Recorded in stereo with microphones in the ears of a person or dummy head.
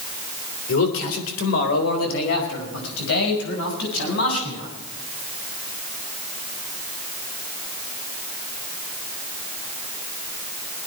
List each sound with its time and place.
0.7 s a man speaking: 90° left, 3 m; by 4.7 s 80° left, 7.5 m